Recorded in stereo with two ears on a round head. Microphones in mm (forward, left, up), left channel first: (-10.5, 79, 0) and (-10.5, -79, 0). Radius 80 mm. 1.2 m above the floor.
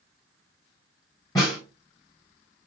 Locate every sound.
1.4 s a snare drum: 20° left (ahead or behind), 1.7 m